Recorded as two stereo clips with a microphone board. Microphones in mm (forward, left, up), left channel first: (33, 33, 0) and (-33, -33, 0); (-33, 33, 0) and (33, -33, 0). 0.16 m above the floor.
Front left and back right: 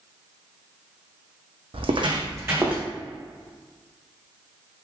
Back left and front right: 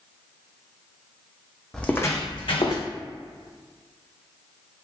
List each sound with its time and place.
1.7 s footsteps: 140° right, 0.6 m; by 2.8 s 145° left, 0.9 m